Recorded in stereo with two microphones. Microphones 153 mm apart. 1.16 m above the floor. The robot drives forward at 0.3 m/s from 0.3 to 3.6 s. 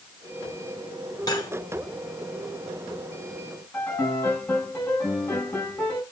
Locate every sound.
1.3 s cutlery clinking: 25° left (ahead or behind), 2.5 m
3.7 s a piano: 15° left (ahead or behind), 6.5 m